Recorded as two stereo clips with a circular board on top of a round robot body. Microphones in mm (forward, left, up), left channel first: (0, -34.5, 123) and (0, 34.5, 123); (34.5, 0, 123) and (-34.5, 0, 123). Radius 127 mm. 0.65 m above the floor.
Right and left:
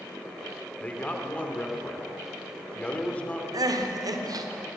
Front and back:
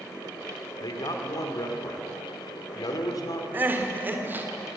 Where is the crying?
120° left, 2.0 m.